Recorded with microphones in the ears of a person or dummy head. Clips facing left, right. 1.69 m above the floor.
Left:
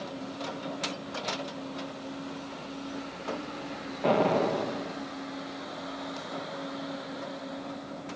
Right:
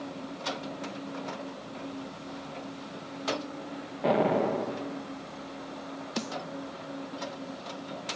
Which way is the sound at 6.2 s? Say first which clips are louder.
Right 5 dB; 75° right (ahead or behind).